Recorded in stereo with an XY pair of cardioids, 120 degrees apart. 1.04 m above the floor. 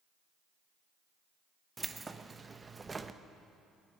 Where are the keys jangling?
20° right, 0.6 m.